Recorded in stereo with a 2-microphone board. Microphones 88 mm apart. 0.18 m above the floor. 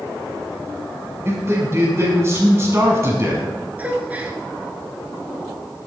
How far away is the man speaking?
About 1.6 m.